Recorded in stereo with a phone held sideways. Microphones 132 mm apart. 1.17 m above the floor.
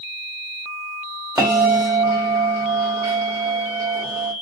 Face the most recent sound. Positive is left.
turn(degrees=-20)  # may be behind; listen again after turning